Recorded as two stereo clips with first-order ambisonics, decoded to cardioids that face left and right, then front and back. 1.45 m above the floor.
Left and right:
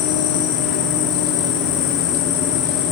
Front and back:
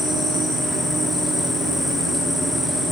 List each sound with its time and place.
0.0 s an insect: 80° left, 5.5 m